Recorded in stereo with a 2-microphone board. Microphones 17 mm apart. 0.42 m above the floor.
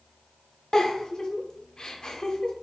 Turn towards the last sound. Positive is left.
turn(degrees=50)  # may be behind; listen again after turning